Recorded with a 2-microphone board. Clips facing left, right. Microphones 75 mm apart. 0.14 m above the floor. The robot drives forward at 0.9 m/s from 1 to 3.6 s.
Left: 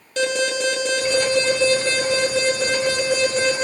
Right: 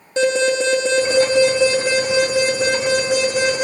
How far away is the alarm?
About 3.5 m.